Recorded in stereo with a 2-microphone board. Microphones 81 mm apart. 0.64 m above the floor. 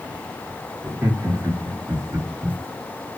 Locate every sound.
0.8 s laughter: 30° right (ahead or behind), 1.3 m; by 2.6 s 20° right (ahead or behind), 1.1 m